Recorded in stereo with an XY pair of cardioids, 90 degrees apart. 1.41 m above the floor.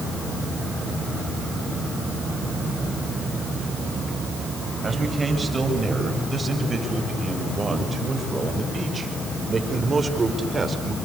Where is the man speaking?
25° right, 8.5 m; by 11.0 s 35° right, 5 m.